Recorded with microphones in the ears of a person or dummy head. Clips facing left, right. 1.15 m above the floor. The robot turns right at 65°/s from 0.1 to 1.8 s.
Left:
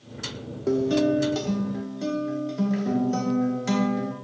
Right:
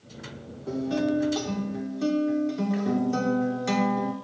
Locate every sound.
0.7 s a guitar: 110° left, 0.8 m; by 4.1 s straight behind, 0.8 m